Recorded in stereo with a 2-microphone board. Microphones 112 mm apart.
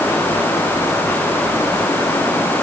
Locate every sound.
Only background noise.